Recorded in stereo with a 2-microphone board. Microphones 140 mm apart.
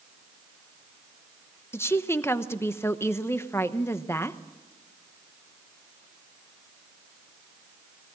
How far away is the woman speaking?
About 0.9 m.